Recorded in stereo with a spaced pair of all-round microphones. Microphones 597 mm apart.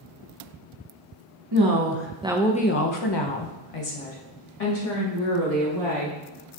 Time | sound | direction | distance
1.5 | a woman speaking | 45° right (ahead or behind) | 0.7 m